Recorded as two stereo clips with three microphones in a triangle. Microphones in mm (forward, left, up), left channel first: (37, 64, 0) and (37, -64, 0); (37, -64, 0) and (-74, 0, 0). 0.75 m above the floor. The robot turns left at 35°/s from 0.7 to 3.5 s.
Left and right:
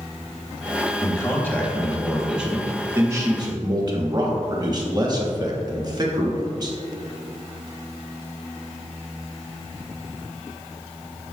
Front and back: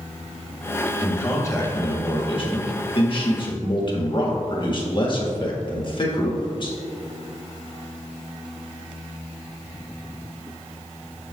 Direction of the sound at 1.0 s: 35° left.